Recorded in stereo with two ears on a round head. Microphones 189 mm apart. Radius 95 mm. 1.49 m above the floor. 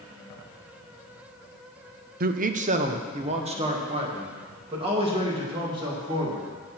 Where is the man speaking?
45° right (ahead or behind), 0.6 m; by 6.5 s 25° right (ahead or behind), 3.5 m.